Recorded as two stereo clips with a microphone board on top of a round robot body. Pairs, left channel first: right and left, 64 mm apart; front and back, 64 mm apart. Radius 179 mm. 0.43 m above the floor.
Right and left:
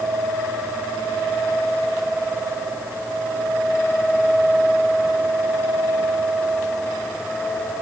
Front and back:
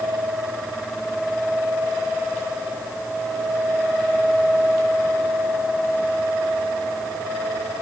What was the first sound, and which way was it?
Only background noise.